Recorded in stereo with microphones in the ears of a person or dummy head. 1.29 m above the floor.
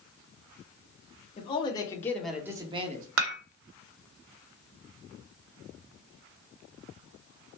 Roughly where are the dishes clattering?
Right.